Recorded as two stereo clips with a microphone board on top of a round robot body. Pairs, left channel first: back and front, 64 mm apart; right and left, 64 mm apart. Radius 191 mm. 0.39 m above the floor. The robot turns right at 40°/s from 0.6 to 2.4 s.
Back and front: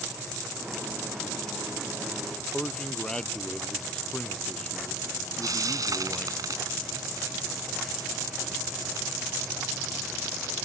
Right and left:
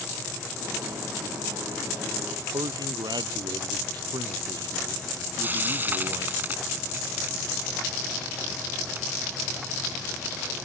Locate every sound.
2.5 s a man speaking: 100° left
5.4 s frying: 30° left